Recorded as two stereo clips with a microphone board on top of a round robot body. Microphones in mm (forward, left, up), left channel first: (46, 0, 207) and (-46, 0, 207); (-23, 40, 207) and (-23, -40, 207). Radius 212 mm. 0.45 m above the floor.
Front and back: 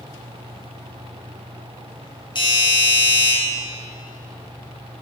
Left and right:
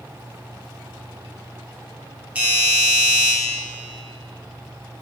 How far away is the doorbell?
About 3 m.